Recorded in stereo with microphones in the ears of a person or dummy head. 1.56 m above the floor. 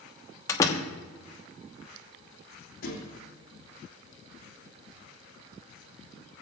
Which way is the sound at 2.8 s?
50° left (ahead or behind).